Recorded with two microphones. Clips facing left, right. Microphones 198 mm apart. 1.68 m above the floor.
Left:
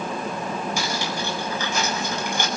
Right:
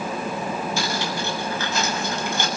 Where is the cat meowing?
No cat meowing in this recording.